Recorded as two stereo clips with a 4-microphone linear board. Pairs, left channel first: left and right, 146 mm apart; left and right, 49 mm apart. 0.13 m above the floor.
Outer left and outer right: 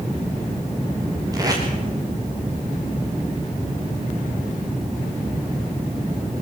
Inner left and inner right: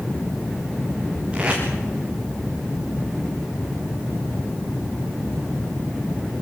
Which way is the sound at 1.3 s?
25° right (ahead or behind).